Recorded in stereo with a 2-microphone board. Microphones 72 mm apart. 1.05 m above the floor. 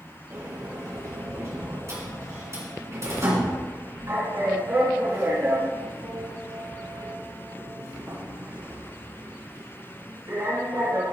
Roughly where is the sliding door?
Right.